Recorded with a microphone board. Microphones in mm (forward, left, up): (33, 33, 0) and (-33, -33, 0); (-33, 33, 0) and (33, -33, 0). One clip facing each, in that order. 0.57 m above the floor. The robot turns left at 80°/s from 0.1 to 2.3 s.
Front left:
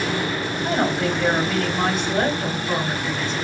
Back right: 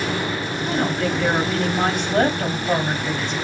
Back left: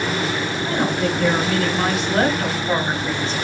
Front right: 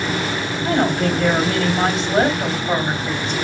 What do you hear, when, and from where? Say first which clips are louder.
0.6 s a woman speaking: front left 1 dB, front right 4 dB; 5° left, 3 m; by 3.3 s 130° right, 3 m